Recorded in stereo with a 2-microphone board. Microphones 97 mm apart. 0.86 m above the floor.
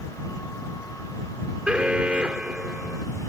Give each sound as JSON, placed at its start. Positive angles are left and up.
{"t": 1.7, "sound": "an alarm", "side_deg": -15}